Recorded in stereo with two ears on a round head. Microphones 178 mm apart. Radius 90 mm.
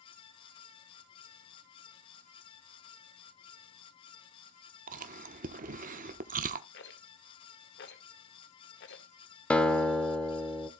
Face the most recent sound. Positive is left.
turn(degrees=5)  # may be behind; listen again after turning